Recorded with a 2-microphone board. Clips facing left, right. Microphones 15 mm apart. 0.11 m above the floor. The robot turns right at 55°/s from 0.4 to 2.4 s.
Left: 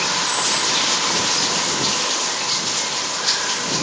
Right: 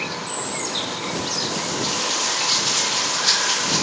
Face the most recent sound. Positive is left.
turn(degrees=180)